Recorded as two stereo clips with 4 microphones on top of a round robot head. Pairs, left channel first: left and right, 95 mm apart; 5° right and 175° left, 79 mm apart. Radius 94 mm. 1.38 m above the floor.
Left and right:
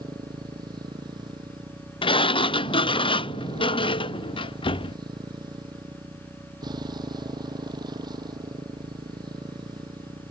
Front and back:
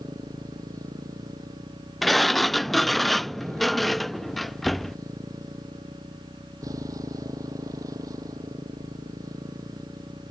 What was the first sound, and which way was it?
A motorcycle, 135° right.